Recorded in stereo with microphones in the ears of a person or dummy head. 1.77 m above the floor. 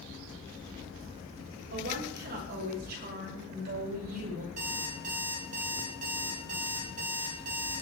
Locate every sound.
1.7 s a woman speaking: 55° right (ahead or behind), 7.5 m; by 4.5 s 50° right (ahead or behind), 5.5 m
4.6 s an alarm clock: 45° right (ahead or behind), 6.5 m